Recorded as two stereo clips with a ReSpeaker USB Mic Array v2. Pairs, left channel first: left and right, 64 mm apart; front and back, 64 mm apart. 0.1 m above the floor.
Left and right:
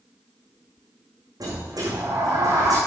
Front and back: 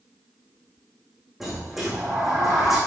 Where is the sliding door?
95° right, 5 m.